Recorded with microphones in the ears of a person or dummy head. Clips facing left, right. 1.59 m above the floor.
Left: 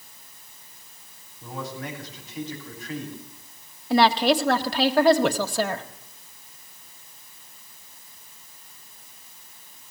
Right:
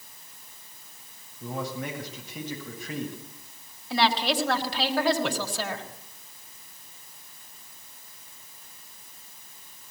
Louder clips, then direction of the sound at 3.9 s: Left 6 dB; 45° left (ahead or behind).